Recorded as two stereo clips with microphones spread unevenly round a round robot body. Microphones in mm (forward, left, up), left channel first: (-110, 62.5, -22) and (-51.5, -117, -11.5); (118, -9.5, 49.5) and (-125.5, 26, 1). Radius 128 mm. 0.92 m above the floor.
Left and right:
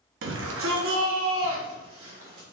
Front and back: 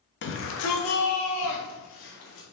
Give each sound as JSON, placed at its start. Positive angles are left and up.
{"t": 0.2, "sound": "a shout", "azimuth_deg": -55, "distance_m": 1.3}